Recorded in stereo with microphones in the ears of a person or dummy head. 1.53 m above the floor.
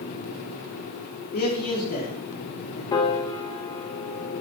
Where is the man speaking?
50° left (ahead or behind), 3.5 m.